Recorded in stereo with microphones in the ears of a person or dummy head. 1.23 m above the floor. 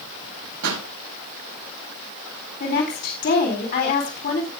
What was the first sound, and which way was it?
A pop, 85° right.